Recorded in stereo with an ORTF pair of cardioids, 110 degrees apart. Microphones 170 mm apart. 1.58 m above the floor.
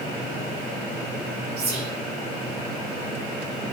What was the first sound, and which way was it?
Whispering, 60° right.